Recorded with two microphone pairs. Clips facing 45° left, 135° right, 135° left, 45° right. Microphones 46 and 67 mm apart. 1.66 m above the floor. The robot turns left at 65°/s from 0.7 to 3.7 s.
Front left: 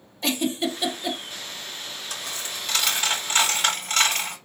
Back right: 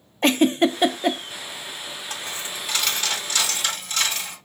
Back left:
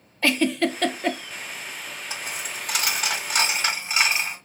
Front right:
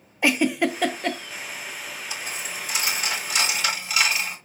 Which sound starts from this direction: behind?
A dropped coin, at 2.1 s.